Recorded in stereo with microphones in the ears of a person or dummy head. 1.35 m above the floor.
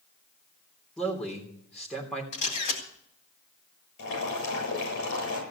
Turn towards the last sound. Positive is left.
turn(degrees=70)  # may be behind; listen again after turning